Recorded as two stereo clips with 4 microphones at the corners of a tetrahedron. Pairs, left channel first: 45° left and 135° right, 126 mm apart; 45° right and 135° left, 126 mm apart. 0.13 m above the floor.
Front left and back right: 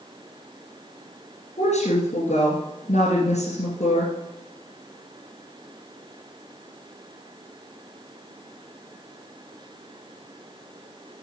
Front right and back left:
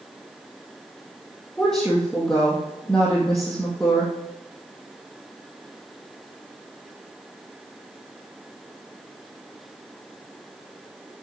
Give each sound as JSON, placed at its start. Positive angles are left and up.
{"t": 1.6, "sound": "a woman speaking", "azimuth_deg": 40, "distance_m": 2.5}